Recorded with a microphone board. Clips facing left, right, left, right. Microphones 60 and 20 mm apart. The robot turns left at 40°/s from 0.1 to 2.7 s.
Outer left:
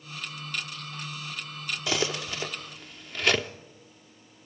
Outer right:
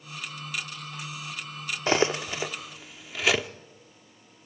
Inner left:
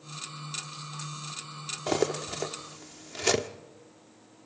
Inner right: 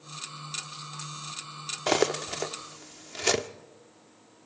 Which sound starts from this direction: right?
Cutlery clinking, at 1.9 s.